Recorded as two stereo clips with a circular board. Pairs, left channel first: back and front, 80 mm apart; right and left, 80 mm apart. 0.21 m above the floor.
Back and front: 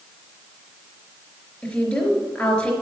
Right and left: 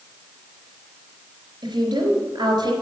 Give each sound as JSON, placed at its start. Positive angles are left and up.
{"t": 1.6, "sound": "a woman speaking", "azimuth_deg": 105, "distance_m": 4.0}